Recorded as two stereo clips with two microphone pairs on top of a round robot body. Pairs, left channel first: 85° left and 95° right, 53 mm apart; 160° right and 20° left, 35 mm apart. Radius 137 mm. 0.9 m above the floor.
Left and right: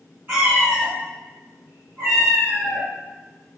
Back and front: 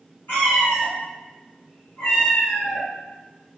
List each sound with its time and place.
0.3 s a cat meowing: 135° right, 0.9 m